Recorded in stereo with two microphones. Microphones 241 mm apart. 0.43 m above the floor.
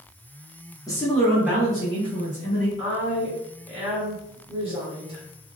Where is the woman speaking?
25° right (ahead or behind), 0.9 m.